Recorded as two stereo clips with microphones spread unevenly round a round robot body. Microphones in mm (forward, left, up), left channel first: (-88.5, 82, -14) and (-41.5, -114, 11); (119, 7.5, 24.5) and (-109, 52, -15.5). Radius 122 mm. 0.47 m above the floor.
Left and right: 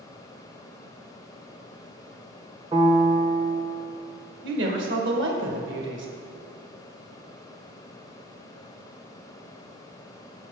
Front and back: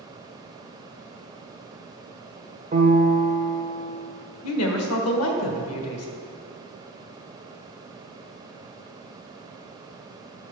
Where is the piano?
145° right, 1.2 m.